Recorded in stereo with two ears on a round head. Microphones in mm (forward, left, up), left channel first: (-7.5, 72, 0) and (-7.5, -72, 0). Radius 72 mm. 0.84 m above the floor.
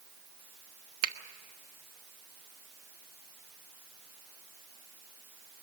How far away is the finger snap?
About 1.2 m.